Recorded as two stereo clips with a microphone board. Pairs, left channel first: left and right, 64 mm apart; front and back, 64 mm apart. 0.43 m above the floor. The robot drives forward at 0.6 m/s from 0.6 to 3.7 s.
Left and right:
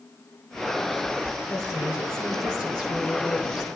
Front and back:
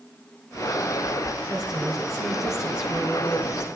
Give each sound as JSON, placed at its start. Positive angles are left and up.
{"t": 1.5, "sound": "a woman speaking", "azimuth_deg": 95, "distance_m": 9.0}